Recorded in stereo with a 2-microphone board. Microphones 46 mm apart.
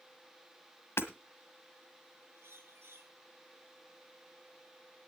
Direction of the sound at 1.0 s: 65° left (ahead or behind).